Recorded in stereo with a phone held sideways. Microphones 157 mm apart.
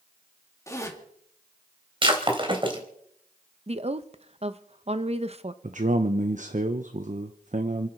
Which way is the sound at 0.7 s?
20° left (ahead or behind).